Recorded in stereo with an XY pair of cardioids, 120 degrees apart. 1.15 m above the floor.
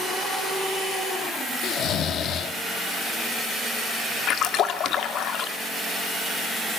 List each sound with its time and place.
1.6 s snoring: 65° left, 1.3 m
4.3 s a splash: 65° left, 2 m